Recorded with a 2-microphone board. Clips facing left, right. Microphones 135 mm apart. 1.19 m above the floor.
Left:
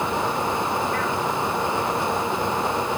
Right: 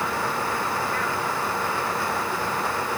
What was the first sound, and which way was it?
Only background noise.